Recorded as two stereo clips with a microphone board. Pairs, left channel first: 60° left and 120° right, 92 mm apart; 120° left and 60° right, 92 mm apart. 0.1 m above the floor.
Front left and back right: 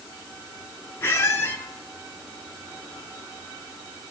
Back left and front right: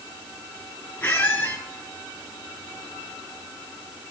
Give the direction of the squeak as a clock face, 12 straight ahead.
10 o'clock.